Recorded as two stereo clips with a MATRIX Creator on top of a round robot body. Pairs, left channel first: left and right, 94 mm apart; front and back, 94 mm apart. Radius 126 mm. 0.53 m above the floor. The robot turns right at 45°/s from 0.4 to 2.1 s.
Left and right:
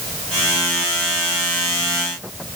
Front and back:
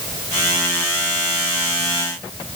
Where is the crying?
I don't hear crying.